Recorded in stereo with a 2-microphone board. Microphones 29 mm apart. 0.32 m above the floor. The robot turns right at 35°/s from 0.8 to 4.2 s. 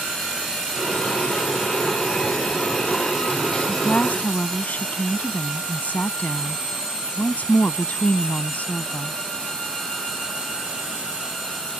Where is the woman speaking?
65° left (ahead or behind).